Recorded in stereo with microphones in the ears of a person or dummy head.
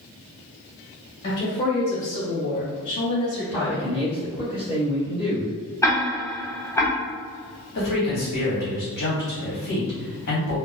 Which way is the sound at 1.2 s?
35° left (ahead or behind).